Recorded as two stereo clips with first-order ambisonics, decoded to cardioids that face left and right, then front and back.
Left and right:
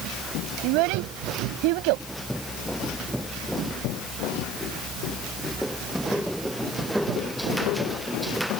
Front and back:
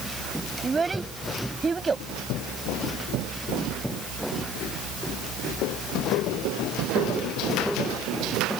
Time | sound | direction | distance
0.6 | a child speaking | 105° right | ?